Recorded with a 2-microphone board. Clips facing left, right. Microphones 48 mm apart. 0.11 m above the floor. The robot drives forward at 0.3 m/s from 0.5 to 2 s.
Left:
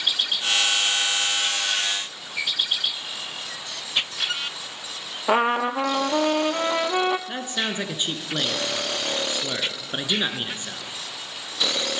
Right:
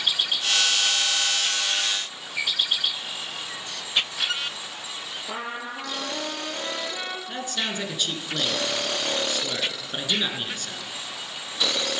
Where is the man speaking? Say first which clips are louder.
Left 2 dB; 20° left (ahead or behind), 1.1 m.